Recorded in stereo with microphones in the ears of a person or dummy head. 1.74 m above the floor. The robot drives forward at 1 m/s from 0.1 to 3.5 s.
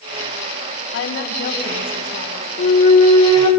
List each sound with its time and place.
0.9 s a woman speaking: 65° left (ahead or behind), 2 m; by 2.5 s 40° left (ahead or behind), 3 m
2.6 s a flute: 40° left (ahead or behind), 1.8 m; by 3.5 s 25° left (ahead or behind), 2.5 m